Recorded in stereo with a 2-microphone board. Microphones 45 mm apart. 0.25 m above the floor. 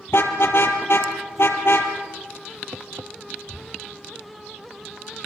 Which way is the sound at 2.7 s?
75° right (ahead or behind).